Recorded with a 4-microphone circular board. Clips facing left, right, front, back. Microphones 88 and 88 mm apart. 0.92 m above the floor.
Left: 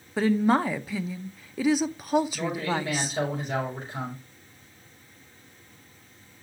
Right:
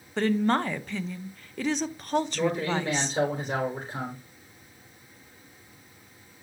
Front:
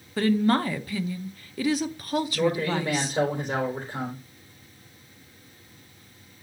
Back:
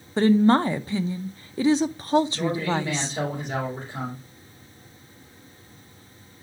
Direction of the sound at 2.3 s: 45° right.